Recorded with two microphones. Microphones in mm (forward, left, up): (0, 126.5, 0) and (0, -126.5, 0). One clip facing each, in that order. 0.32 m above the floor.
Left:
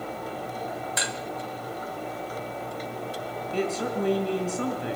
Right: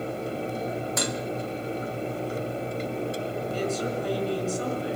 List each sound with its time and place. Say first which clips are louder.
1.0 s dishes clattering: right 5 dB; 50° right (ahead or behind), 1.3 m
3.5 s a woman speaking: left 3 dB; 65° left (ahead or behind), 4.5 m